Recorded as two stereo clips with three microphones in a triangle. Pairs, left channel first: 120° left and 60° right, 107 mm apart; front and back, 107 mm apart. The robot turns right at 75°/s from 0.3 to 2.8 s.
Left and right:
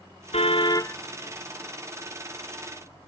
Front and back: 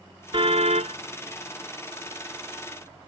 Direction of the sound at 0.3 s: 140° left.